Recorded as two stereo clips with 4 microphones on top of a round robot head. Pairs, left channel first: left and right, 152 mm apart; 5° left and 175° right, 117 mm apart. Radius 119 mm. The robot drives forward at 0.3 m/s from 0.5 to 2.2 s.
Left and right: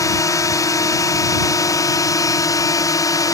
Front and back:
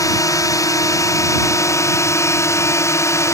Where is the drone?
40° left; by 3.4 s 45° left.